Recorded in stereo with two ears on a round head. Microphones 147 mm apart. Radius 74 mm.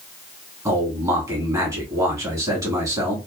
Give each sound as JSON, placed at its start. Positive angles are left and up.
{"t": 0.7, "sound": "a man speaking", "side_deg": -20, "distance_m": 1.4}